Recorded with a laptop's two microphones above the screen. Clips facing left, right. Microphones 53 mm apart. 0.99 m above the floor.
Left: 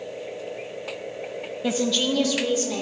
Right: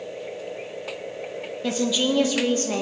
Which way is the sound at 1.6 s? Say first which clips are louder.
Even; 5° left (ahead or behind).